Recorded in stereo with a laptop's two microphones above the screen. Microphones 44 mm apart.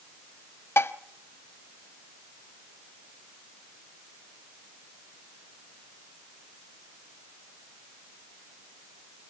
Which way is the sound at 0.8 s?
70° left (ahead or behind).